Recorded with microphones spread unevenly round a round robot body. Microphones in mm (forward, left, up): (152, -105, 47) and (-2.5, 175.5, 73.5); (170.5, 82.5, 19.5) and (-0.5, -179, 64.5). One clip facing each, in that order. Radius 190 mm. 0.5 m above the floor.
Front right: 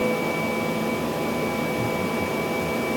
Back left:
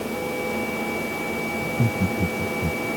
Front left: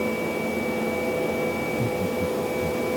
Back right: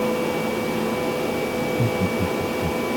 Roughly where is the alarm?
I don't hear an alarm.